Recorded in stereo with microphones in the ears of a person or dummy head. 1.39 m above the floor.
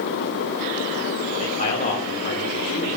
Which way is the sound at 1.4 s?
40° left (ahead or behind).